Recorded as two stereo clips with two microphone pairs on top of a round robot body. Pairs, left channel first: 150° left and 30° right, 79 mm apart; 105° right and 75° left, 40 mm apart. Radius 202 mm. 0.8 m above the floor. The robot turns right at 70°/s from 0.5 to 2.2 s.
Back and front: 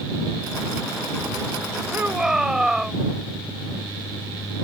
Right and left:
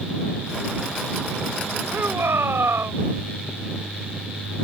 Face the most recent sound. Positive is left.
turn(degrees=55)